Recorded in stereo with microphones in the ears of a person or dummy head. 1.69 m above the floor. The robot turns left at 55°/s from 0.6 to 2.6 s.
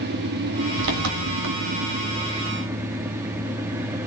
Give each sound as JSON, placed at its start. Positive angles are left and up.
{"t": 0.0, "sound": "an engine running", "azimuth_deg": -60, "distance_m": 3.0}